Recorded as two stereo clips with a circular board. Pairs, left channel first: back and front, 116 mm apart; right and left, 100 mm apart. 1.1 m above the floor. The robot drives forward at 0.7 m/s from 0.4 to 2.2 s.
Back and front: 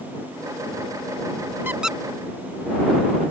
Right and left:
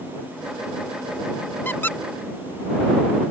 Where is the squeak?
45° right; by 2.0 s 95° right.